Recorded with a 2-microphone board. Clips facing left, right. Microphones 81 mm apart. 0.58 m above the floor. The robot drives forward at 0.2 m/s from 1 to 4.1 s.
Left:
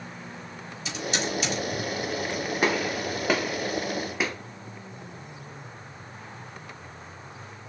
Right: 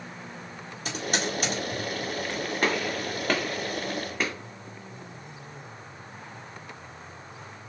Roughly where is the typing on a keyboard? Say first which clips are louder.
Even; right.